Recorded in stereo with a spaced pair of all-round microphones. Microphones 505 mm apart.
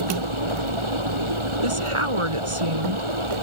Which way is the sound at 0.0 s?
70° right (ahead or behind).